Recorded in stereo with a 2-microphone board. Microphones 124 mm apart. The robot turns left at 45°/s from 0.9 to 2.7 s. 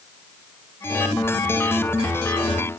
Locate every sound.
Only background noise.